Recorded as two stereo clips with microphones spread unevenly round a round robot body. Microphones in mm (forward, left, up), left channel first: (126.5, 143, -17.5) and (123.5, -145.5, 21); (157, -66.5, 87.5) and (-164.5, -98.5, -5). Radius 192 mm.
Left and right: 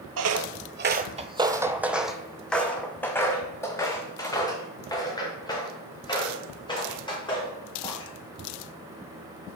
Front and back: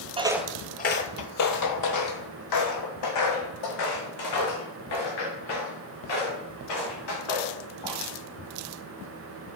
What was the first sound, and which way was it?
Footsteps, 90° right.